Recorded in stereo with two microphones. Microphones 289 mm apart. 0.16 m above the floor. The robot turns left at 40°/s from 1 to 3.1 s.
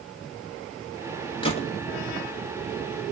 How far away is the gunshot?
About 1.0 m.